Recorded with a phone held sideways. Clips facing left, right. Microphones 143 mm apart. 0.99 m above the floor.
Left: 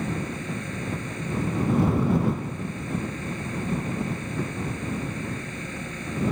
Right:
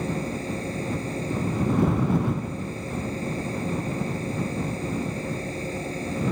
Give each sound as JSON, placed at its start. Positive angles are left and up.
{"t": 0.0, "sound": "a fan", "side_deg": -35}